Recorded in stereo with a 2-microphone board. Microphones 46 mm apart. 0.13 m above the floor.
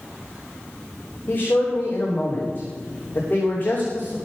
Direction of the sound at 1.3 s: 40° left (ahead or behind).